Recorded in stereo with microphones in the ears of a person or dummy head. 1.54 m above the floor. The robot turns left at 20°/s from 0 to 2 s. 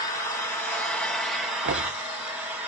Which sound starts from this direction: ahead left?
An engine running, at 0.0 s.